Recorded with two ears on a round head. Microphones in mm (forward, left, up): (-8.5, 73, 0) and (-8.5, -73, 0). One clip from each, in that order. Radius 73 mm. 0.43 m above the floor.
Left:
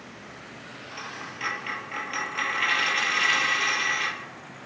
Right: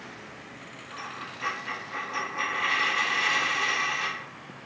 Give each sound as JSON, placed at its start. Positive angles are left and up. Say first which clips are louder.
{"t": 0.9, "sound": "a dropped coin", "louder": "even", "side_deg": 80, "distance_m": 1.9}